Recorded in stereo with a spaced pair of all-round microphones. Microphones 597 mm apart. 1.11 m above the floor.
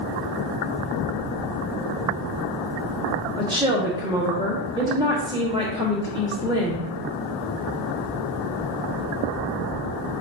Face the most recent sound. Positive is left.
turn(degrees=-10)  # may be behind; listen again after turning